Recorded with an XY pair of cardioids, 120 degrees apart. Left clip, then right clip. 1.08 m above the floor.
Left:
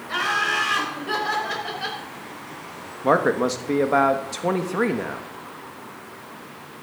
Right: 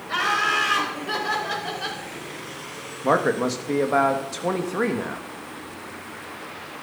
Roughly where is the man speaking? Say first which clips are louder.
Left 2 dB; ahead.